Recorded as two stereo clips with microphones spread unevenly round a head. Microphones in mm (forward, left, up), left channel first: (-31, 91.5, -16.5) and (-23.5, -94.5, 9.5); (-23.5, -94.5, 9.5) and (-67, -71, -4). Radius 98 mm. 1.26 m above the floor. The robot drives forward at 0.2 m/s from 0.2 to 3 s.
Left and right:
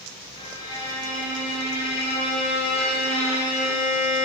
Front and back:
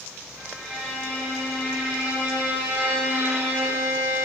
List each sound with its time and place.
0.4 s a violin: 25° left, 0.7 m; by 4.3 s 115° left, 0.6 m